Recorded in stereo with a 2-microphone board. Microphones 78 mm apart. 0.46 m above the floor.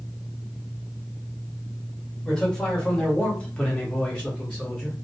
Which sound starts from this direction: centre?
A man speaking, at 2.2 s.